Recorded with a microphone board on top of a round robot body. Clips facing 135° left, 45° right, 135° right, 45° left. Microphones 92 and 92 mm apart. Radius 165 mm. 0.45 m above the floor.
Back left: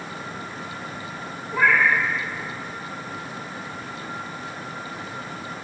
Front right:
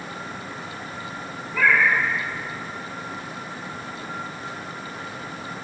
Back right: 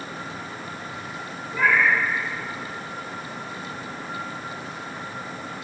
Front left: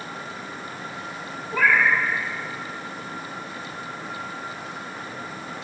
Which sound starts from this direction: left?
A cat meowing, at 1.5 s.